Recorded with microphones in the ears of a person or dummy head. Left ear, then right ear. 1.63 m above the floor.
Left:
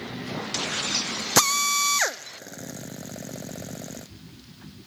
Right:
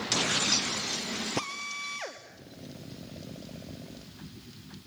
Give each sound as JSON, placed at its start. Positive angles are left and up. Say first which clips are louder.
{"t": 1.4, "sound": "a drill", "louder": "left 13 dB", "side_deg": 55, "distance_m": 0.7}